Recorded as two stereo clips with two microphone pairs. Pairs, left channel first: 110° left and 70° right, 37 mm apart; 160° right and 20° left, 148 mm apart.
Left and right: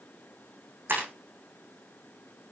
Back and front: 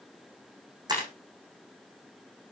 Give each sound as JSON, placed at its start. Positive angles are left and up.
{"t": 0.9, "sound": "breaking glass", "azimuth_deg": -45, "distance_m": 6.5}